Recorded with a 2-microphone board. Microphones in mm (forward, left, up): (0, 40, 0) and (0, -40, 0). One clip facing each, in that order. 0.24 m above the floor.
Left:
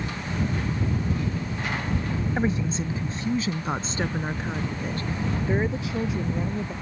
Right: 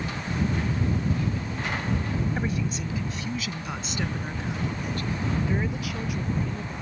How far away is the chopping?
No chopping in this recording.